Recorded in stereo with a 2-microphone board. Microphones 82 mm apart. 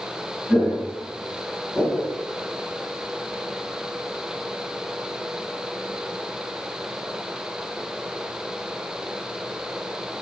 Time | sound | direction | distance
0.5 | footsteps | 5° left (ahead or behind) | 1.7 m